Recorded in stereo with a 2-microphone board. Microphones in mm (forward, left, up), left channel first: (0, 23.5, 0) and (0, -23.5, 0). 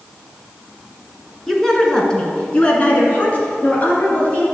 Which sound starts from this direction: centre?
A woman speaking, at 1.5 s.